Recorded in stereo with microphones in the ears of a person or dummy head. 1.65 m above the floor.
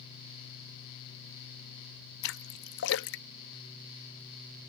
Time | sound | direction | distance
2.2 | a splash | 55° left (ahead or behind) | ?